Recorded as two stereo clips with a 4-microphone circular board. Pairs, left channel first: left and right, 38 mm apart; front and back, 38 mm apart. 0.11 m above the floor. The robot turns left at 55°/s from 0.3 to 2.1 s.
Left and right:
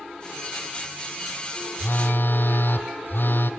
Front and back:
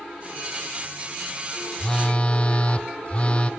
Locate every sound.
1.8 s a phone buzzing: 75° left, 1.2 m; by 3.5 s 60° left, 1.2 m